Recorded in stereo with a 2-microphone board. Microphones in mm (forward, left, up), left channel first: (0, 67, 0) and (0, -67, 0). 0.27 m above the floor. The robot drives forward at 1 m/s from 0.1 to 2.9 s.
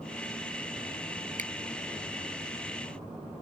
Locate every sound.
1.4 s a finger snap: 75° right (ahead or behind)